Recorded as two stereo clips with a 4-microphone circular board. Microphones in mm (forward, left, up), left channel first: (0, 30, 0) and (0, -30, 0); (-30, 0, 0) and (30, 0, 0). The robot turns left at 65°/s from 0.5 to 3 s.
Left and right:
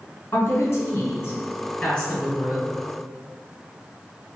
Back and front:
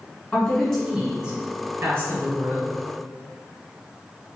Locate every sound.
0.3 s a woman speaking: 120° left, 1.8 m; by 2.7 s 20° right, 1.8 m